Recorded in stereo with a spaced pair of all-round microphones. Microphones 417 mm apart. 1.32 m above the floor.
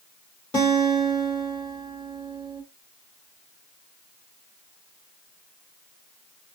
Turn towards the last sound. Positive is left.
turn(degrees=10)  # may be behind; listen again after turning